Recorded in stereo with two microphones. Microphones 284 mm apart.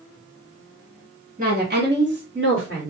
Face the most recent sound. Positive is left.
turn(degrees=-50)  # may be behind; listen again after turning